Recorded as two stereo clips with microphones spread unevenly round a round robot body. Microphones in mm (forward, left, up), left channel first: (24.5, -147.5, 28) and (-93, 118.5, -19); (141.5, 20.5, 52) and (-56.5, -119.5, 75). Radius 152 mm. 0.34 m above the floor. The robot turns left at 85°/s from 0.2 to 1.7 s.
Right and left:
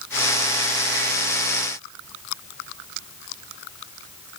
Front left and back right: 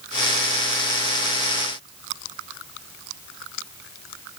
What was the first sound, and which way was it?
Only background noise.